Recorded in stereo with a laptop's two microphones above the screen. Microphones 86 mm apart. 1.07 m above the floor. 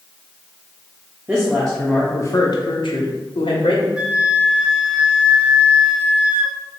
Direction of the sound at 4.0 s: 10° right (ahead or behind).